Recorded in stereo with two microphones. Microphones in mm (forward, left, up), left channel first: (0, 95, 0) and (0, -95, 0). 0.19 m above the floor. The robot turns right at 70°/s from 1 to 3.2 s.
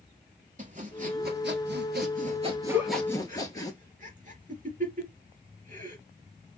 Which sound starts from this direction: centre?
A giggle, at 2.7 s.